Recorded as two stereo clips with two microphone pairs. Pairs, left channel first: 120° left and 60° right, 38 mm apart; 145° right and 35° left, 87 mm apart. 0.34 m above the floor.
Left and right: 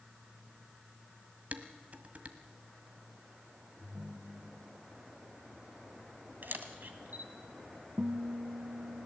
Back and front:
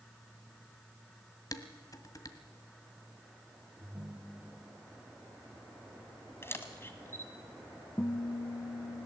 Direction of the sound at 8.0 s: 90° right.